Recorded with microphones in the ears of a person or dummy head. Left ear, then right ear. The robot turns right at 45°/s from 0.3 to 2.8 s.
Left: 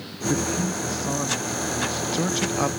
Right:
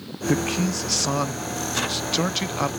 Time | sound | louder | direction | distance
0.3 | a man speaking | right 1 dB | 120° right | ?